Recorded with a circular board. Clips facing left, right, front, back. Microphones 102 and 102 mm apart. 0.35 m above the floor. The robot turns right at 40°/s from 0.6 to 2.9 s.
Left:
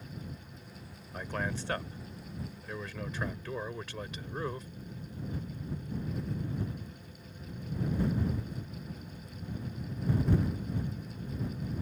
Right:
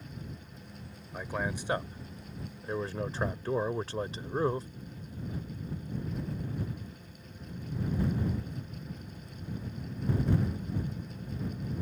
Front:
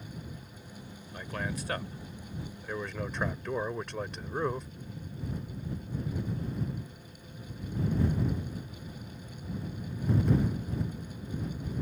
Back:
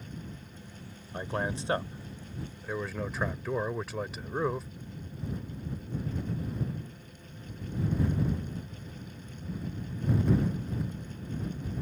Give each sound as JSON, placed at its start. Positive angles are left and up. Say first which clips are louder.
{"t": 1.1, "sound": "a man speaking", "louder": "right 1 dB, back 4 dB", "azimuth_deg": -170}